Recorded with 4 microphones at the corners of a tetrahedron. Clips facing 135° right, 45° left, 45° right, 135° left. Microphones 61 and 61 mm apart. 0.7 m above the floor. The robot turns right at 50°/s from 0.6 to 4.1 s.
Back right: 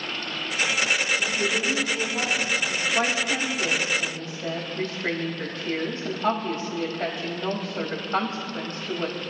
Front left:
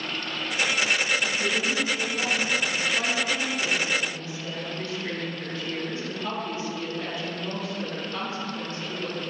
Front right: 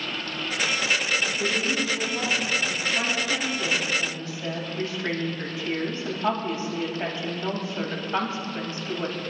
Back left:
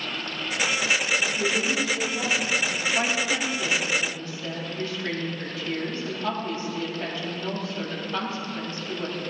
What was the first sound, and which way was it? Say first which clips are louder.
A woman speaking: back right 1 dB, back left 1 dB; 145° right.